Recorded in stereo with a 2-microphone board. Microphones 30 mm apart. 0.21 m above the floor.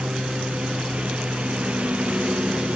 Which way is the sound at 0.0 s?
40° right (ahead or behind).